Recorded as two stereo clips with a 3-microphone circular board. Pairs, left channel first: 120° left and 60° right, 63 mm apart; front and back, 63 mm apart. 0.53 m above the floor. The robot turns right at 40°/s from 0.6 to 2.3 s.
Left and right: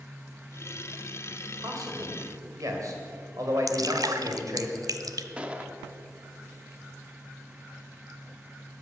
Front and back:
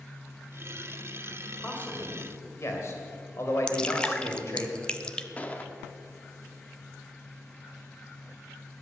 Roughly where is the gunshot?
Ahead.